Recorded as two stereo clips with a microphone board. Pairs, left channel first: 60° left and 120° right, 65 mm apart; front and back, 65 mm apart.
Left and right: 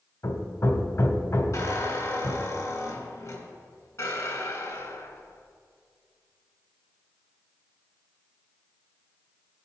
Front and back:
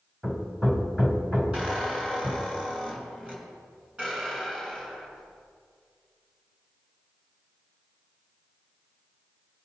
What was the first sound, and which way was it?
Hammering, 105° left.